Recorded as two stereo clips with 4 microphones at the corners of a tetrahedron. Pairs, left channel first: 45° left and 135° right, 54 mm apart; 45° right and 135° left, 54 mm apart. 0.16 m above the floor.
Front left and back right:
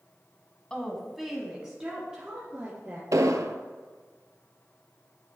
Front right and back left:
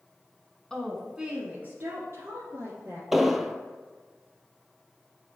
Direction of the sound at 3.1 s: 140° right.